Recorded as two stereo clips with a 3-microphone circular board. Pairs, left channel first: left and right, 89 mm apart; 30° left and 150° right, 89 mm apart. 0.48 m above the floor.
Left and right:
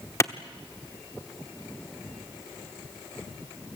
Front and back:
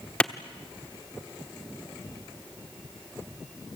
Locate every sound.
0.2 s a clap: 95° left, 0.9 m